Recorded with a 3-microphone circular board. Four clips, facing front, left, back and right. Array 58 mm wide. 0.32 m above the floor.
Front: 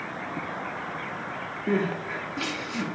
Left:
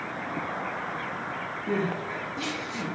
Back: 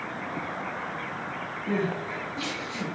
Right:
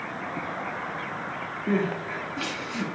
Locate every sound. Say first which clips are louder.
1.7 s crying: right 3 dB, front 2 dB; 40° right, 1.7 m